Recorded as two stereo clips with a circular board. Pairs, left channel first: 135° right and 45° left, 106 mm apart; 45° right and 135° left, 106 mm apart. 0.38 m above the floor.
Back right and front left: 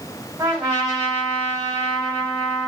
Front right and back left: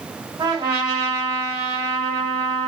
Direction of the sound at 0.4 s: 105° left.